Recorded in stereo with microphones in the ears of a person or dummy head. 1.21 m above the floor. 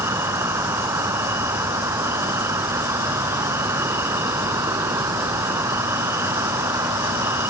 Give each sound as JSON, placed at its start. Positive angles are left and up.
{"t": 0.0, "sound": "an insect", "side_deg": -15}